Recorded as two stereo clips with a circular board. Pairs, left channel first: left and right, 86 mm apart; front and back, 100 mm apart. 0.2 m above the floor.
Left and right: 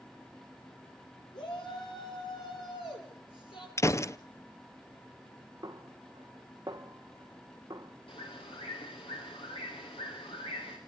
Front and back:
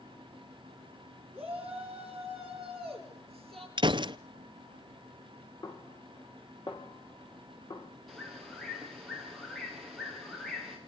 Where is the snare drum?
40° right, 2.5 m.